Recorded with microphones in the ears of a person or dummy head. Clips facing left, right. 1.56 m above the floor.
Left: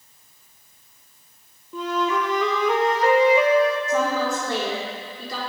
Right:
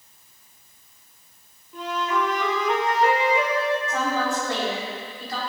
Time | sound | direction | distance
1.7 | a flute | 65° left (ahead or behind) | 1.1 m
3.9 | a woman speaking | 85° left | 4 m